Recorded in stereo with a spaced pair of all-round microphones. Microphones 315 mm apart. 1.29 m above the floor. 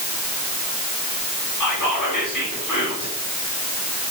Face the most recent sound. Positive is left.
turn(degrees=75)  # may be behind; listen again after turning